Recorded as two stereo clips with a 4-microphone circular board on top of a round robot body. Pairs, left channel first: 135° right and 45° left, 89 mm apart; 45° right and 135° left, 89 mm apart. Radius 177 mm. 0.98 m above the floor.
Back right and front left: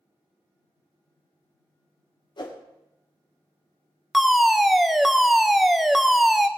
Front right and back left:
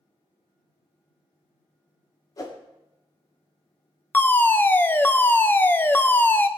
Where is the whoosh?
95° right, 1.8 m.